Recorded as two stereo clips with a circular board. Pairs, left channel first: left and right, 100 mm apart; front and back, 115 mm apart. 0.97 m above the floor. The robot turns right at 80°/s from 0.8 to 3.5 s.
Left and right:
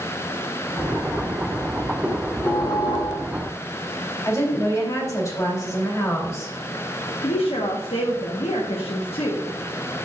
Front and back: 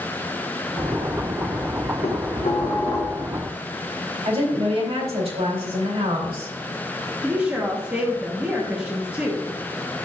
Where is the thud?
No thud in this recording.